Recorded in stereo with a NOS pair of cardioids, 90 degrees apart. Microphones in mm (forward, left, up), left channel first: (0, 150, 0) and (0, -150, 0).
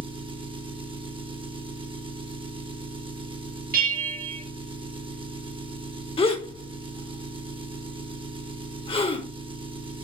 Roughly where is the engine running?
Ahead.